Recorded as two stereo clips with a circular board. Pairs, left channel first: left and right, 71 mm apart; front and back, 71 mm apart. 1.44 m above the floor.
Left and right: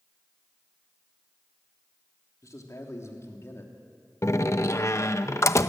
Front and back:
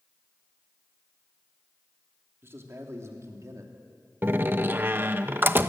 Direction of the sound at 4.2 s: 125° left.